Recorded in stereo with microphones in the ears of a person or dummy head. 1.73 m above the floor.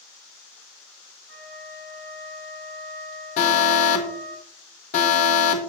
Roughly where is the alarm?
Left.